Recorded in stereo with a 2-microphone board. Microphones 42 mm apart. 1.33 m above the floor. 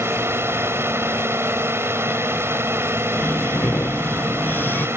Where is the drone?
80° right.